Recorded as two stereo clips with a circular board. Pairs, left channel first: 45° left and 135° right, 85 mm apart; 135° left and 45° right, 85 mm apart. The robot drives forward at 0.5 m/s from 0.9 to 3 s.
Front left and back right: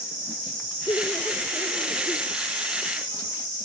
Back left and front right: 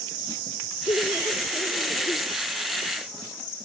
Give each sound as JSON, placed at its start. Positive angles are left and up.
{"t": 0.9, "sound": "laughter", "azimuth_deg": 100}